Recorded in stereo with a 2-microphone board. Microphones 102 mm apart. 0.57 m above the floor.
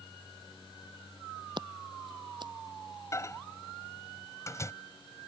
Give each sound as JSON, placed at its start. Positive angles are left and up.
{"t": 1.6, "sound": "scissors", "side_deg": -50}
{"t": 3.1, "sound": "a microwave", "side_deg": 30}